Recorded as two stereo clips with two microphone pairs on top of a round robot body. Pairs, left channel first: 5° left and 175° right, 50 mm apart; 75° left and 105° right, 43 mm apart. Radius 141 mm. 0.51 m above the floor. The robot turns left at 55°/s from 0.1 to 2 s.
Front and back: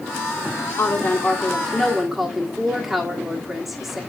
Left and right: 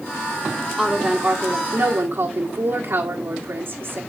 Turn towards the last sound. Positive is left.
turn(degrees=-85)